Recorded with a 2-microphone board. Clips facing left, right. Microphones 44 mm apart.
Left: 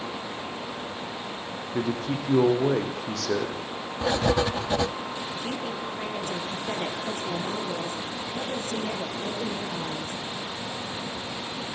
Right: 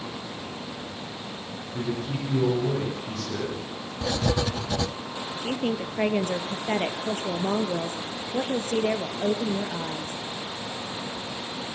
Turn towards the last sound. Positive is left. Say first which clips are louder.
# right 8 dB
turn(degrees=-45)  # may be behind; listen again after turning